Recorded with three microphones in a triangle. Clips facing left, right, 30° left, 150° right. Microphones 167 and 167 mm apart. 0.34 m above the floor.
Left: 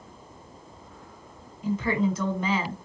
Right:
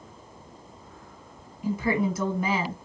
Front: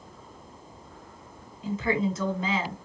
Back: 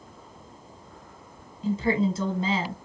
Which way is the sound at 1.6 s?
160° right.